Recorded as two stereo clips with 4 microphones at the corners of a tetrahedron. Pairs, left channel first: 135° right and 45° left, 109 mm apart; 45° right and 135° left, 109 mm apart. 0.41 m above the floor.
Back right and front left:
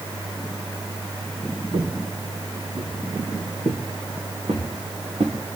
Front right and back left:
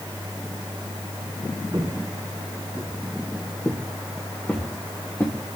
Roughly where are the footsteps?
Left.